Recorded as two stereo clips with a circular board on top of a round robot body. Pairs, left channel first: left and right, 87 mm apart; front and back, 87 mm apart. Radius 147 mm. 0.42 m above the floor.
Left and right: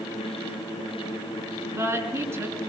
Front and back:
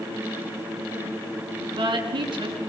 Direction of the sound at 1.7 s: 150° right.